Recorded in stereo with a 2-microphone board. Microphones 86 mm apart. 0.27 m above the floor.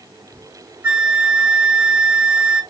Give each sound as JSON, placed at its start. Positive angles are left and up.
{"t": 0.8, "sound": "a flute", "side_deg": -15, "distance_m": 1.2}